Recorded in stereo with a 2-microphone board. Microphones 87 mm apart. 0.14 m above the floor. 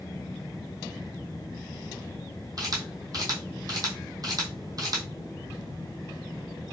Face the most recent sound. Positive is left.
turn(degrees=-45)  # may be behind; listen again after turning